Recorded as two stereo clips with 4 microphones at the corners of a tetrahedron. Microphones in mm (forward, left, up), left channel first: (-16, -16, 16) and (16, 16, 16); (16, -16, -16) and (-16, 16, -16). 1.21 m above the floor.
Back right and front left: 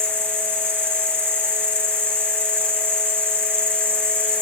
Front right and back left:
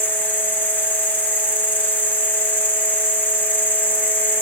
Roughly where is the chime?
No chime in this recording.